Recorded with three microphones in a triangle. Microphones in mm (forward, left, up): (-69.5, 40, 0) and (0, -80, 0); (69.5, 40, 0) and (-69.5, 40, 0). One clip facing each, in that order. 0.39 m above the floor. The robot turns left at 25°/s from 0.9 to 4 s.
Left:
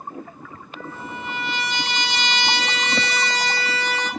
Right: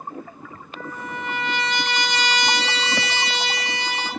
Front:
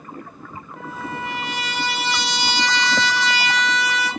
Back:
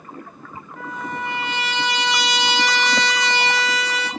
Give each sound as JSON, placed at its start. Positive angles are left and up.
{"t": 0.8, "sound": "a trumpet", "azimuth_deg": -60, "distance_m": 1.3}